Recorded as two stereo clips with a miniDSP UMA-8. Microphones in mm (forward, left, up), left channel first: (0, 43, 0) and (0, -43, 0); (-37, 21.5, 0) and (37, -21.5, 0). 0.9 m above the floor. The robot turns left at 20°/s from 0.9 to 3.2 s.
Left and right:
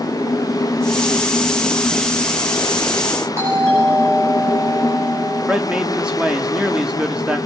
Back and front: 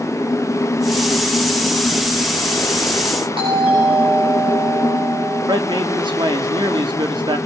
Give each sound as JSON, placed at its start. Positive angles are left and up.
{"t": 3.4, "sound": "a doorbell", "azimuth_deg": -30, "distance_m": 9.5}
{"t": 5.5, "sound": "a man speaking", "azimuth_deg": -10, "distance_m": 1.7}